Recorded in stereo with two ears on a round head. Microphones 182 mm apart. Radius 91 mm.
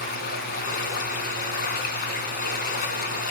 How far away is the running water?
About 2 m.